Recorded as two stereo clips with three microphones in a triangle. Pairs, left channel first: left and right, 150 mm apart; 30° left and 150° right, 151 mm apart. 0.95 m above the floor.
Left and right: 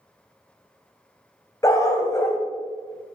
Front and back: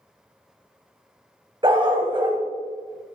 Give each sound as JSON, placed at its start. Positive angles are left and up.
{"t": 1.6, "sound": "a dog barking", "azimuth_deg": 155, "distance_m": 1.5}